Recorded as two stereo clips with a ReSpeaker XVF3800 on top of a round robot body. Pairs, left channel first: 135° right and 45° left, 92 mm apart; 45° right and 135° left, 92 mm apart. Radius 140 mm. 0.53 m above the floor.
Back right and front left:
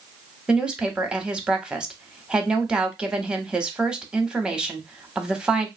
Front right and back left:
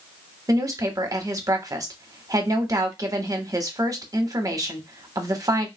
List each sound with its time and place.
0.5 s a woman speaking: 120° left, 1.2 m